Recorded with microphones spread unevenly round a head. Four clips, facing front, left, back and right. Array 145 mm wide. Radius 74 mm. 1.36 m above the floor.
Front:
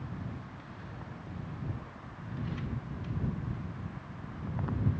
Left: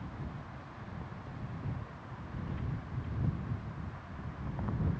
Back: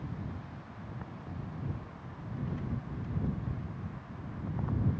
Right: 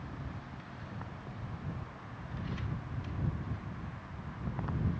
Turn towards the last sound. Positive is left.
No sound to turn to.